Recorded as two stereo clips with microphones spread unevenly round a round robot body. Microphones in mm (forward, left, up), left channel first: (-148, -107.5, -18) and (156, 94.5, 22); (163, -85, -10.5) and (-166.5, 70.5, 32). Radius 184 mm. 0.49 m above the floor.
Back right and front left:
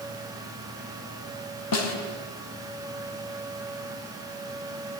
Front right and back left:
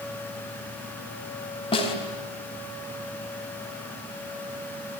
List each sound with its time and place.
1.7 s a snare drum: 100° right, 4 m